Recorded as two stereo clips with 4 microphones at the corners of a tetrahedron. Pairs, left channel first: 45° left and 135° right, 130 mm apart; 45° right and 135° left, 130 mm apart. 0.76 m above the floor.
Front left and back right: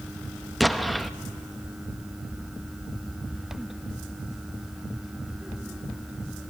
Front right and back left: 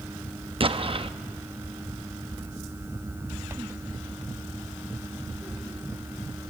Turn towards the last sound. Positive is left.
turn(degrees=135)